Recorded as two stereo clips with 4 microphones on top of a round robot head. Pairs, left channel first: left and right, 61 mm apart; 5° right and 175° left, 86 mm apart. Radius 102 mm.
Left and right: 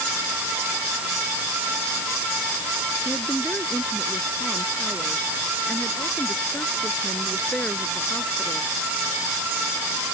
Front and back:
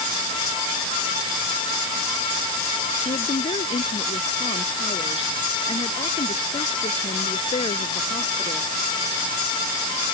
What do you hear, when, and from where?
3.0 s a woman speaking: 15° left